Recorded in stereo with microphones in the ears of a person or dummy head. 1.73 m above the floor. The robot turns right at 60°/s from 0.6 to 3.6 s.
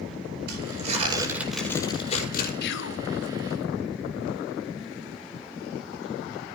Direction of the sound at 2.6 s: 50° left (ahead or behind).